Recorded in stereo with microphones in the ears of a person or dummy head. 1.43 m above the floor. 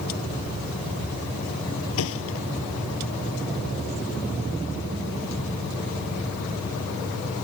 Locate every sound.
2.0 s a thud: 80° left